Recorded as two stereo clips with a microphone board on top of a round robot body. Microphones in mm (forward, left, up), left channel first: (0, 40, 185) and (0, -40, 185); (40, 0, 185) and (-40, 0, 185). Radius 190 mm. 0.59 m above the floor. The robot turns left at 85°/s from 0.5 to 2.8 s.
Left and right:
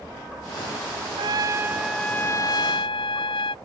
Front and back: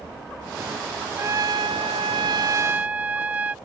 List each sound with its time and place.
1.2 s a trumpet: 115° right; by 3.5 s 105° left